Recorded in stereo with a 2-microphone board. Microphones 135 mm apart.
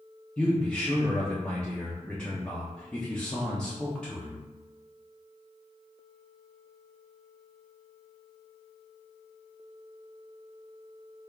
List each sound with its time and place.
0.4 s a man speaking: 5° left (ahead or behind), 0.6 m